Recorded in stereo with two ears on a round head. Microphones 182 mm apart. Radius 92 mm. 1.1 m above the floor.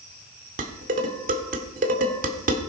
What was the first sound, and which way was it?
Dishes clattering, 45° right (ahead or behind).